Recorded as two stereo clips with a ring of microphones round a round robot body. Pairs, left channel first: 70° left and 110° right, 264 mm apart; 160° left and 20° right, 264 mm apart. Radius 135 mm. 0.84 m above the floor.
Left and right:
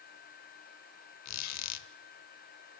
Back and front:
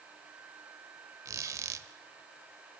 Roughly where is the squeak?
Ahead left.